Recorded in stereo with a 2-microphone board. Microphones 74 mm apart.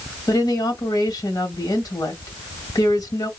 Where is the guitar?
I don't hear a guitar.